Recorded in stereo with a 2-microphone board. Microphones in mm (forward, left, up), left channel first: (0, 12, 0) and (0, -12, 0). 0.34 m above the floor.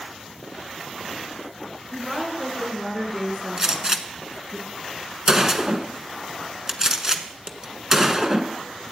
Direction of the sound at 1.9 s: 10° right (ahead or behind).